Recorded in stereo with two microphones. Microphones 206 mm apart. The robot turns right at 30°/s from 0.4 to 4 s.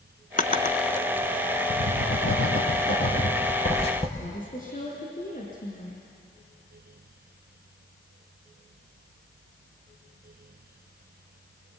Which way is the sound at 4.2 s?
40° left (ahead or behind).